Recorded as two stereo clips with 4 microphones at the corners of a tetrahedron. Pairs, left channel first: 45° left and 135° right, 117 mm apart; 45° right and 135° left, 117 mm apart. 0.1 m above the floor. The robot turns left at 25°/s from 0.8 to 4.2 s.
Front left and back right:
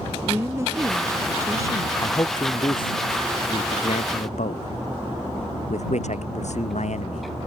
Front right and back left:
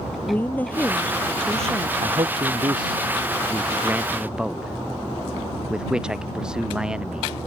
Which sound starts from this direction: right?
A woman speaking, at 0.3 s.